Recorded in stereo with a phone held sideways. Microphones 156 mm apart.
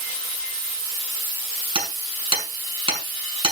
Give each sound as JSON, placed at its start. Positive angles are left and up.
{"t": 1.8, "sound": "hammering", "side_deg": -35, "distance_m": 5.5}